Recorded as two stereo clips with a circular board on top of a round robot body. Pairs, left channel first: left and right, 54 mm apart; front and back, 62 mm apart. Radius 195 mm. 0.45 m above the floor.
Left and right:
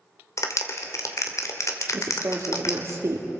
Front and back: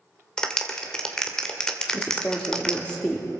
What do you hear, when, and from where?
0.4 s a clap: 80° left, 2.5 m
1.9 s a woman speaking: 75° right, 1.8 m